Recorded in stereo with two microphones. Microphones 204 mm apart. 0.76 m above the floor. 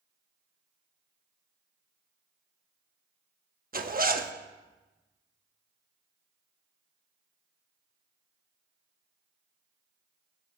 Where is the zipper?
45° right (ahead or behind), 1.0 m.